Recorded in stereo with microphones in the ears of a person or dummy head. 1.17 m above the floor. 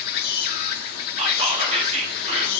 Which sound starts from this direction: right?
Whispering, at 1.2 s.